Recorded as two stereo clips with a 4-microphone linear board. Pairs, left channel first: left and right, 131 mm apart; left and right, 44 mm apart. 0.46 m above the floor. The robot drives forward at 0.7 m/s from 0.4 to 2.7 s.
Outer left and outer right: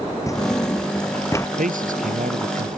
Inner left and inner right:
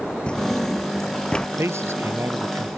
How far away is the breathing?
I don't hear breathing.